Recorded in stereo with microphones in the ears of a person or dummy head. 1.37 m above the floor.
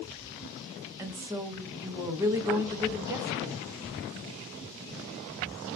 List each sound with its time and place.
1.0 s a woman speaking: 15° right (ahead or behind), 0.6 m